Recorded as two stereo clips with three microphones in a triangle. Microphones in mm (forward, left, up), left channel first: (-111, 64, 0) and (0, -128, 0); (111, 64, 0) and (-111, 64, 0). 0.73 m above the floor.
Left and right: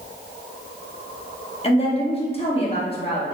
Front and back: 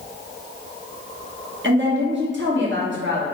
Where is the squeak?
No squeak in this recording.